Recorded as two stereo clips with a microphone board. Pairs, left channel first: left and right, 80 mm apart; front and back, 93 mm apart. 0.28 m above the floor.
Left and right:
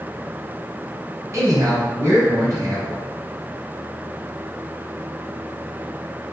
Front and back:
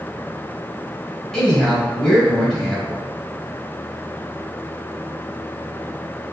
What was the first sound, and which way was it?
A man speaking, 85° right.